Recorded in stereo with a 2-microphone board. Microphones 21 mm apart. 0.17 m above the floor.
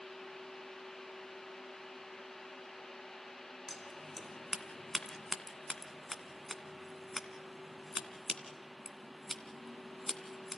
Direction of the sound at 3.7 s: 5° left (ahead or behind).